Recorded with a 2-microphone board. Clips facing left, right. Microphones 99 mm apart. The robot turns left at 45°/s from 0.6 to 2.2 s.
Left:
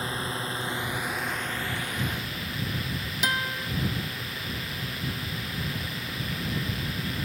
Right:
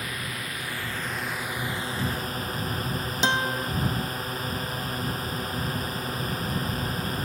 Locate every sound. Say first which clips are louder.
0.0 s a drone: left 3 dB; 30° left; by 7.2 s 45° right
3.2 s a guitar: right 4 dB; 30° right (ahead or behind)